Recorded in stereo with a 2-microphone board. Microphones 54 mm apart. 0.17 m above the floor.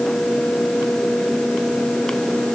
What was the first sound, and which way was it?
Only background noise.